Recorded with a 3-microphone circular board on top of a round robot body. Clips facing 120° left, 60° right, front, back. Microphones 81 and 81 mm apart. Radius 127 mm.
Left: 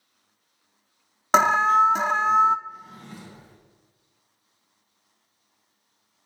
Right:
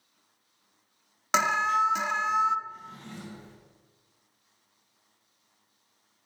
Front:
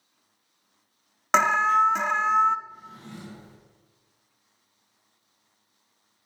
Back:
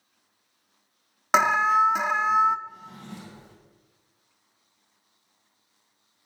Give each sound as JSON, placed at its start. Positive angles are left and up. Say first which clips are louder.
{"t": 1.3, "sound": "an alarm", "louder": "left 7 dB, even", "azimuth_deg": 100, "distance_m": 0.5}
{"t": 2.7, "sound": "a drawer", "louder": "left 2 dB, back 1 dB", "azimuth_deg": -160, "distance_m": 2.0}